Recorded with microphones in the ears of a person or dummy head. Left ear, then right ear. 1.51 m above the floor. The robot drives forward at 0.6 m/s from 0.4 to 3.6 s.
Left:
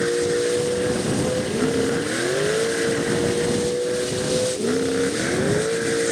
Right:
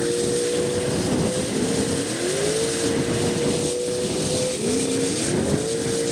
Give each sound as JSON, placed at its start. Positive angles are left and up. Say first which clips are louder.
{"t": 0.0, "sound": "a vehicle", "louder": "left 2 dB", "side_deg": 70}